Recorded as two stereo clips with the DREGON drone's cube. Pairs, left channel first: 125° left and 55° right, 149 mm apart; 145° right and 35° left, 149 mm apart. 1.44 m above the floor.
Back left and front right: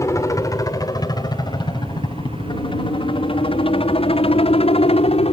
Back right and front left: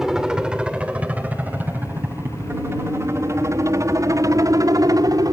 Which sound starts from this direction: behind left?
A helicopter, at 0.0 s.